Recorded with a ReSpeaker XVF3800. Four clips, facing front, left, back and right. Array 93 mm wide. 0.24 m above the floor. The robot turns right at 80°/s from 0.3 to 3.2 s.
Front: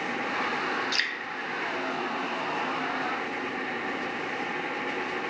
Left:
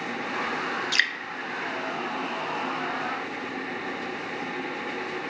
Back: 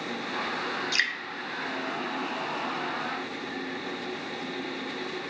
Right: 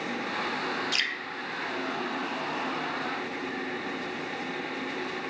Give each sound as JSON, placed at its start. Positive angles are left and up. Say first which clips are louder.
{"t": 0.9, "sound": "dripping", "louder": "left 6 dB, back 2 dB", "azimuth_deg": 95, "distance_m": 0.7}